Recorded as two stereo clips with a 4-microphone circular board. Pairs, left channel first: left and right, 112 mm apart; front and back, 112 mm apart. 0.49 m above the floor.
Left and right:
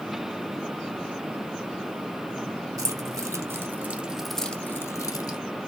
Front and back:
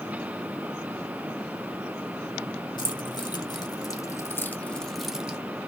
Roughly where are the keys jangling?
Ahead right.